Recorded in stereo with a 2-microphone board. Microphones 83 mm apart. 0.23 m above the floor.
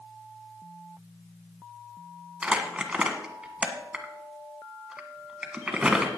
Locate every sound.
2.4 s crumpling: 10° right (ahead or behind), 1.4 m